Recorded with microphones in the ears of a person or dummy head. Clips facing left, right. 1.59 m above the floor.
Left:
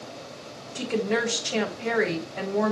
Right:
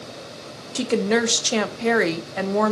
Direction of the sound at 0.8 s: 70° right (ahead or behind).